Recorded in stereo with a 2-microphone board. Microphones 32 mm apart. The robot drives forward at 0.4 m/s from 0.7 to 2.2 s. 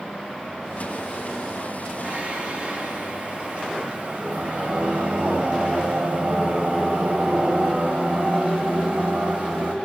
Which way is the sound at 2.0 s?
45° right (ahead or behind).